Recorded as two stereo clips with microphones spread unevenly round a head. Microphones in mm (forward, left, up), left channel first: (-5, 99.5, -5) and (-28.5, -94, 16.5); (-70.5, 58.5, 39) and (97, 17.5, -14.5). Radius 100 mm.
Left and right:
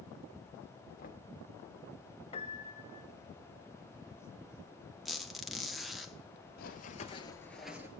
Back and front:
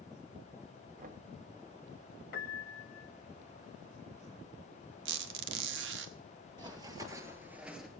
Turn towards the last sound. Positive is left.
turn(degrees=-145)